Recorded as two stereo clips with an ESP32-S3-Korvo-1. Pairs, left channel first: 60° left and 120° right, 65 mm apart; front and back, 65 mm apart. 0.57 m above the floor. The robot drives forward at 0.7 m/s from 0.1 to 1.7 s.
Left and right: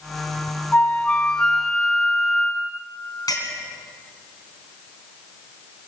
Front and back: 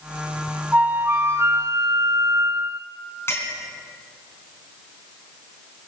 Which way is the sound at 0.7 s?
120° left.